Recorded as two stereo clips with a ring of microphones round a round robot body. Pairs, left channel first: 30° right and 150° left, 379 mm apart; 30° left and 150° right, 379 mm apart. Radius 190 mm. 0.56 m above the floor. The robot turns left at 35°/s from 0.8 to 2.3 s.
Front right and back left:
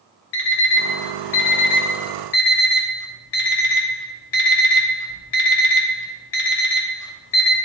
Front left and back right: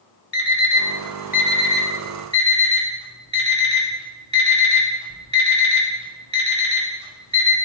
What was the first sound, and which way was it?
An alarm clock, 20° right.